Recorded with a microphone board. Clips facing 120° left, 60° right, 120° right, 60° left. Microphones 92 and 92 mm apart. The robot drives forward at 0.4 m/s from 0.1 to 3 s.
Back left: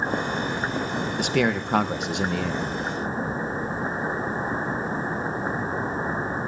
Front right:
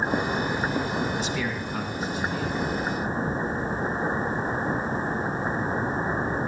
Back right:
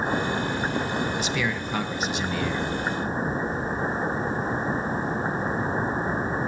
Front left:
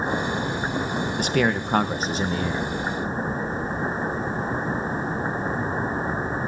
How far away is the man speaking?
About 1.3 m.